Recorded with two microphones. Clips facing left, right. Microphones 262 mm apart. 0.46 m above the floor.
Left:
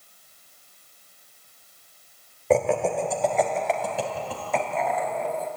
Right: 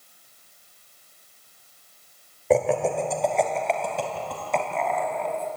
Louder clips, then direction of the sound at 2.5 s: Even; 5° right (ahead or behind).